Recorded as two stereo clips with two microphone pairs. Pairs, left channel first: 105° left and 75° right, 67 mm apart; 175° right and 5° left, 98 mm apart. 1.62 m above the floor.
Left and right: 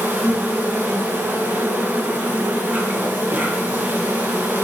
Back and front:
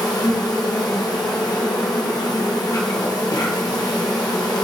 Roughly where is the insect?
Behind right.